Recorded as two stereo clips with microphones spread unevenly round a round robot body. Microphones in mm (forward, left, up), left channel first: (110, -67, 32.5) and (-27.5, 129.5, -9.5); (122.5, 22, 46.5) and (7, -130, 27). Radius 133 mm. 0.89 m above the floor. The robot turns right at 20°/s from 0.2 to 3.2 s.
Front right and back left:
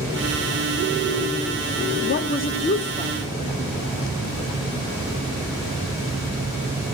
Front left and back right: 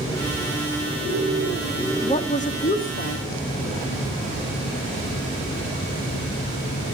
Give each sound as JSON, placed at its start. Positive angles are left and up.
{"t": 2.0, "sound": "a woman speaking", "azimuth_deg": -5, "distance_m": 2.0}